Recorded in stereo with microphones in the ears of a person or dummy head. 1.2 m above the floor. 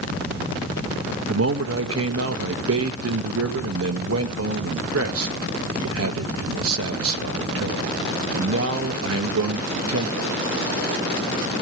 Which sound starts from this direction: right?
A man speaking, at 1.3 s.